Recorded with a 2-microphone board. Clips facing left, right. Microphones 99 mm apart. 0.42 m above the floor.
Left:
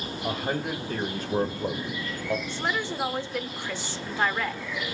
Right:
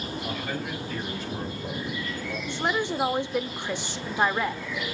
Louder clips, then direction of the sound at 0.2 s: Left 6 dB; 35° left (ahead or behind).